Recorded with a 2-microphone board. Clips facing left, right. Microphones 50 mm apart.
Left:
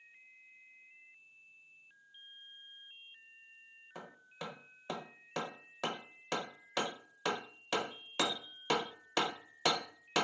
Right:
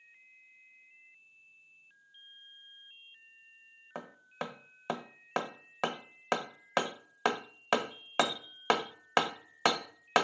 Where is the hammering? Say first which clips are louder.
Right 7 dB; 50° right (ahead or behind), 0.6 m.